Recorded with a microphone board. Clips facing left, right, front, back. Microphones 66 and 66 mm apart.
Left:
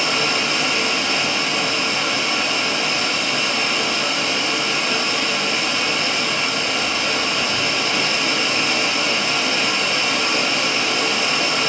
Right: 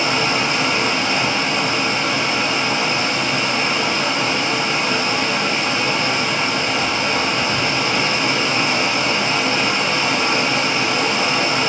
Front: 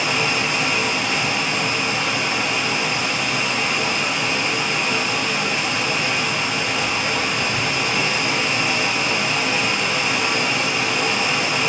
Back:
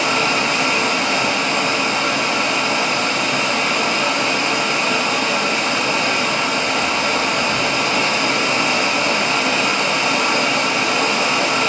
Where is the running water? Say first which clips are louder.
Right 2 dB, back 3 dB; 150° right, 1.5 m.